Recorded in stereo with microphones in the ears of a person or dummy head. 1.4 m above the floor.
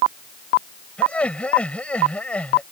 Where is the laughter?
10° left (ahead or behind).